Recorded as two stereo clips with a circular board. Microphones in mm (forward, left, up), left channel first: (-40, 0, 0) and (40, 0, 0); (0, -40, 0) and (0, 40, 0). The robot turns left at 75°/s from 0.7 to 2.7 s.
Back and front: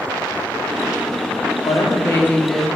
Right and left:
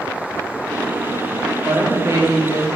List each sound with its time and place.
1.6 s a woman speaking: 165° left, 1.5 m; by 2.7 s 90° left, 1.5 m